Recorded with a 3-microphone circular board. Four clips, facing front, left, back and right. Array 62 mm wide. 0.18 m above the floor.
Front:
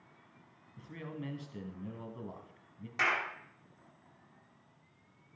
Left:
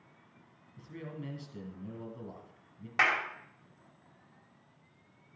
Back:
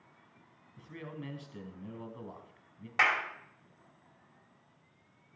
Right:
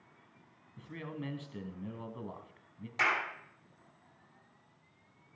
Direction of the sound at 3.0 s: 125° left.